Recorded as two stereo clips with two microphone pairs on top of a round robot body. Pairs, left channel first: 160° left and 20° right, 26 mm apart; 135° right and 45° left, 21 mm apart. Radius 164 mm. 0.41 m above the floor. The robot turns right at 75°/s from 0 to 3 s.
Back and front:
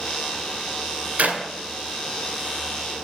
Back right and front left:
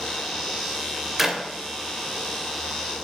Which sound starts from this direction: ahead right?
A clap, at 1.2 s.